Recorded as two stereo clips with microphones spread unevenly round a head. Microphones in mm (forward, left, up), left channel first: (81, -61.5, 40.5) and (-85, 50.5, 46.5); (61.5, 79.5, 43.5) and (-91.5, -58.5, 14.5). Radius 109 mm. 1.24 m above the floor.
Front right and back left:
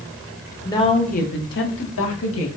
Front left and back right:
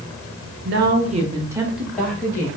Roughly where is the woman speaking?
Right.